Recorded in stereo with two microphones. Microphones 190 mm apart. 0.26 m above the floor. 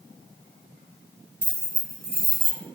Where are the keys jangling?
50° right (ahead or behind), 1.4 m; by 2.6 s 45° right (ahead or behind), 1.2 m.